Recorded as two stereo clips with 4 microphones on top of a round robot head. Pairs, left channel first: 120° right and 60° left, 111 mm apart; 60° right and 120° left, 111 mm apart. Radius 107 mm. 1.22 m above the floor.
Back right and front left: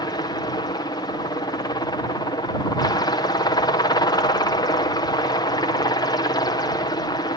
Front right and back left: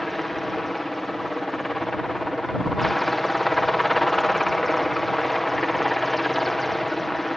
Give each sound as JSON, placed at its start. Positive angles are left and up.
{"t": 0.0, "sound": "a helicopter", "azimuth_deg": -145}